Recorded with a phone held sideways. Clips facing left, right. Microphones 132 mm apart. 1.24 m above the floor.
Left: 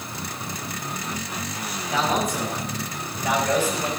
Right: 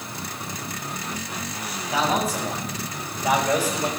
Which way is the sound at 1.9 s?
5° right (ahead or behind).